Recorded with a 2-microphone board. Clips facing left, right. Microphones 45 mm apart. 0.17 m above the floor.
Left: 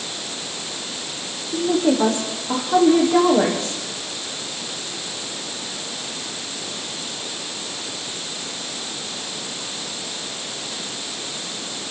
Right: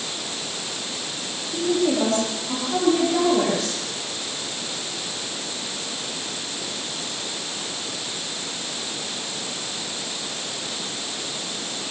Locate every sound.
1.5 s a woman speaking: 25° left (ahead or behind), 8.5 m; by 3.8 s 30° left (ahead or behind), 9.5 m